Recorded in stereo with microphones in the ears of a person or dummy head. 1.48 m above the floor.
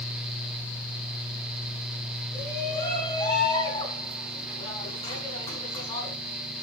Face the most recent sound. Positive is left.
turn(degrees=25)  # may be behind; listen again after turning